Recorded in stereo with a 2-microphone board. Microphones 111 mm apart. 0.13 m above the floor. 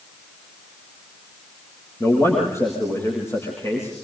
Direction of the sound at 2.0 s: 25° left (ahead or behind).